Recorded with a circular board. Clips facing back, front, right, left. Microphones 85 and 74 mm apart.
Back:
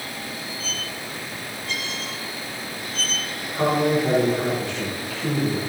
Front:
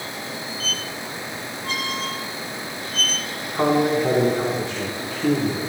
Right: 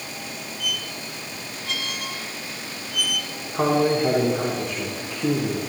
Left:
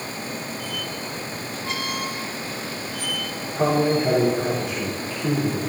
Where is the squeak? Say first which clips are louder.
Front 2 dB, left 2 dB; 40° left, 1.3 m.